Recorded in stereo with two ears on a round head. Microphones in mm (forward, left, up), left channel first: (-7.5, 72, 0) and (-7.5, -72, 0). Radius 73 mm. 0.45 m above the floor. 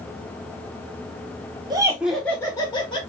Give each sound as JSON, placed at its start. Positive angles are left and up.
{"t": 1.7, "sound": "laughter", "side_deg": -25, "distance_m": 1.1}